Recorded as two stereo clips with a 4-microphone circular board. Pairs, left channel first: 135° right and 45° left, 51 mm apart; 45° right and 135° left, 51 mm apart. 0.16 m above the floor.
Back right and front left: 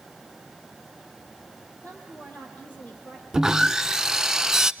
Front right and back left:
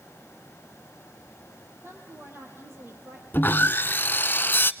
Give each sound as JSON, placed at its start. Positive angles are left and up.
{"t": 1.8, "sound": "a woman speaking", "azimuth_deg": 170, "distance_m": 5.5}
{"t": 3.3, "sound": "sawing", "azimuth_deg": -30, "distance_m": 0.6}